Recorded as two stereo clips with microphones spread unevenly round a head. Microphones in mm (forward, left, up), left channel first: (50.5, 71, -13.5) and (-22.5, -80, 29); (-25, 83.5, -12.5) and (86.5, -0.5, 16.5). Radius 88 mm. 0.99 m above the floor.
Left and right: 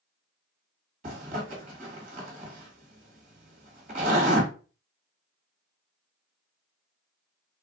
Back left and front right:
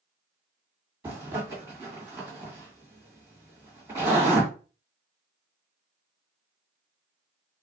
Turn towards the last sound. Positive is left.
turn(degrees=-100)